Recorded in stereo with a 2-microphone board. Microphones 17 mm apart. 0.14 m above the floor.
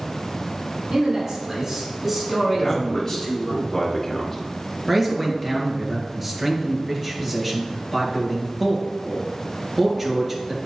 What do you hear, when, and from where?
0.9 s a man speaking: 40° right (ahead or behind), 2 m; by 3.5 s 30° left (ahead or behind), 2.5 m
2.5 s a man speaking: 20° left (ahead or behind), 1.7 m
4.9 s a man speaking: 15° right (ahead or behind), 2 m